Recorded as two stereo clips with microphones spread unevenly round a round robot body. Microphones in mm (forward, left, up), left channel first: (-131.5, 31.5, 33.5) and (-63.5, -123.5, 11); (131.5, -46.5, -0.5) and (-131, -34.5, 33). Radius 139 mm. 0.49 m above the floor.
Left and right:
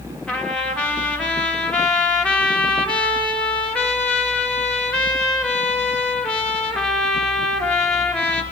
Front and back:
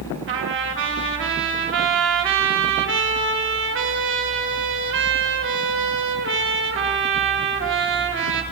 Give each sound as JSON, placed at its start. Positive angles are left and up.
{"t": 0.3, "sound": "a trumpet", "azimuth_deg": -155, "distance_m": 1.8}